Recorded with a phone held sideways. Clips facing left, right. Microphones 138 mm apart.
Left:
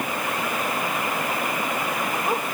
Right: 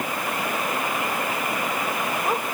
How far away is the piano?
No piano in this recording.